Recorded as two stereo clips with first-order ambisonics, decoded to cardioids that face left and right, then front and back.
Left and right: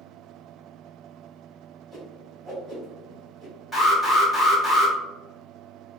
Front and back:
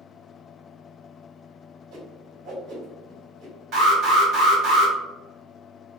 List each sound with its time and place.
1.9 s a whoosh: 165° right, 2.0 m
3.7 s an alarm: 165° left, 1.5 m